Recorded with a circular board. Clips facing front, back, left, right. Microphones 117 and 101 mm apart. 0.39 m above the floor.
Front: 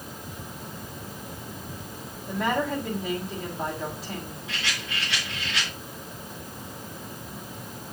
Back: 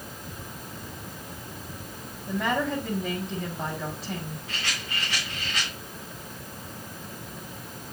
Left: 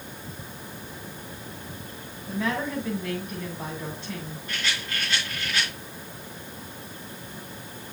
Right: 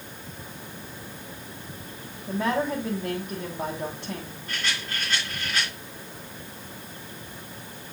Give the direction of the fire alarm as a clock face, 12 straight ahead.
I don't hear a fire alarm.